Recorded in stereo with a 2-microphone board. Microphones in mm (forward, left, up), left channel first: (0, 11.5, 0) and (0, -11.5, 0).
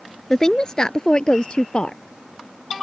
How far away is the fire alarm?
No fire alarm in this recording.